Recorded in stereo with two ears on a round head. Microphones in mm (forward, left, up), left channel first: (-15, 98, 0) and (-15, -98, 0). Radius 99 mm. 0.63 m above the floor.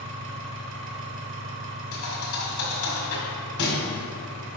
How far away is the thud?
About 1.6 m.